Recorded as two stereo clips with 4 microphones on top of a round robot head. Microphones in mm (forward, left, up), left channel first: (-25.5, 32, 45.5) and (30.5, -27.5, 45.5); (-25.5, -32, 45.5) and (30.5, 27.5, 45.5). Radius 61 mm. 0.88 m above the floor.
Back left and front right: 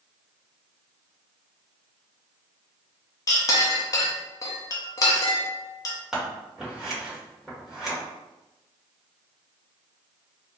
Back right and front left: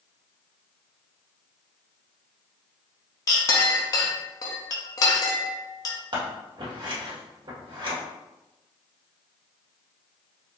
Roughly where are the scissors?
Ahead left.